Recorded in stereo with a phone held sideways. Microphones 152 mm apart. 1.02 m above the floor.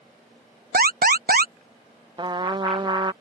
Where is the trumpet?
30° right (ahead or behind).